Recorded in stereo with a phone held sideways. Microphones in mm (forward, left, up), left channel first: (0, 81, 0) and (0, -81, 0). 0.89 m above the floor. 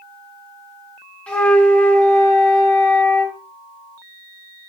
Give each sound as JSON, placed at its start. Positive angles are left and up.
{"t": 1.3, "sound": "a flute", "side_deg": 10, "distance_m": 3.5}